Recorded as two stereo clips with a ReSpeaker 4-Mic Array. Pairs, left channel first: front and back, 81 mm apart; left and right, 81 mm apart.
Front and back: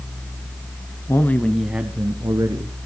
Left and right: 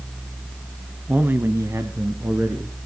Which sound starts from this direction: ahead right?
A man speaking, at 1.1 s.